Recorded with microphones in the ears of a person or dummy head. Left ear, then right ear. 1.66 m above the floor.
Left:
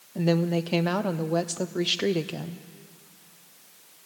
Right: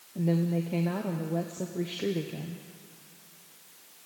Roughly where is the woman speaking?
Left.